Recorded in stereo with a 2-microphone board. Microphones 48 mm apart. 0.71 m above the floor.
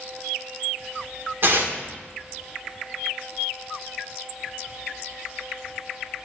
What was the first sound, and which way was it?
Tearing paper, 50° right (ahead or behind).